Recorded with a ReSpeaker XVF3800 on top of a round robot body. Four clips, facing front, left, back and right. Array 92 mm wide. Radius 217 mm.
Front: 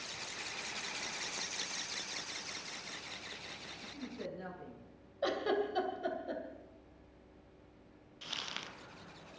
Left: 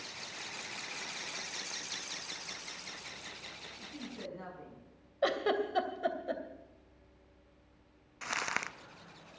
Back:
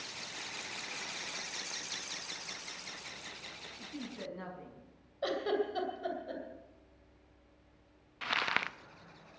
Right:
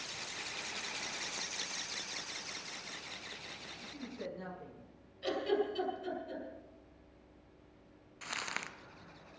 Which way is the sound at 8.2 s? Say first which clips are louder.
Left 5 dB, back 12 dB; 155° left.